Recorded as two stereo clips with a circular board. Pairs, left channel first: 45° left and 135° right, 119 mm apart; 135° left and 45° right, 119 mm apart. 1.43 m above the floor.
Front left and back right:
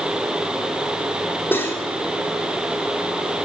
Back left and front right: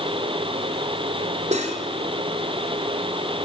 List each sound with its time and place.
1.5 s cutlery clinking: 25° right, 3.5 m